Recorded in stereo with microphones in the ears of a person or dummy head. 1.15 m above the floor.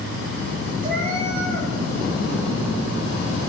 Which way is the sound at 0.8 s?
60° right (ahead or behind).